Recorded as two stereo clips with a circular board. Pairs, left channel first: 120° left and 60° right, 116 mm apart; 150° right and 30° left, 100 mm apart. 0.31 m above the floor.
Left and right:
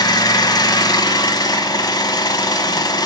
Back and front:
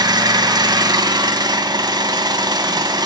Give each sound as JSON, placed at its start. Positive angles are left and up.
{"t": 0.0, "sound": "an engine running", "azimuth_deg": 70, "distance_m": 0.8}